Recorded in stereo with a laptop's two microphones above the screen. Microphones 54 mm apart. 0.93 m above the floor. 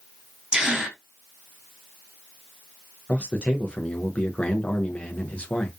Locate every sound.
0.5 s a gasp: 20° right (ahead or behind), 1.5 m
3.1 s a man speaking: 20° left (ahead or behind), 0.5 m